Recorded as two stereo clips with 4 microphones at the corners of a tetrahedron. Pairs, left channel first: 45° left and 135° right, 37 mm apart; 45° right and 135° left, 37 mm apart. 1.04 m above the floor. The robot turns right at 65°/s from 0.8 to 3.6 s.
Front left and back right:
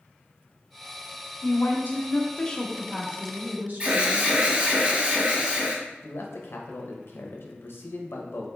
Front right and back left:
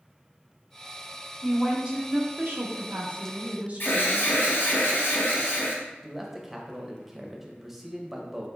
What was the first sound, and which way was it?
A woman speaking, 45° left.